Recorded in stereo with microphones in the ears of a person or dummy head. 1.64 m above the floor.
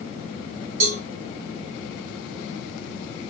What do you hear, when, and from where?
0.8 s a cowbell: 75° right (ahead or behind), 1.2 m